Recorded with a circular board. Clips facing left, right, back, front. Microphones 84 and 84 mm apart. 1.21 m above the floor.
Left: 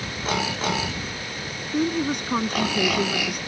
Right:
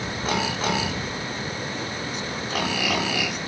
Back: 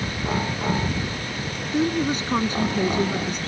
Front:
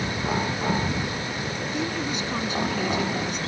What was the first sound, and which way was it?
A woman speaking, 125° left.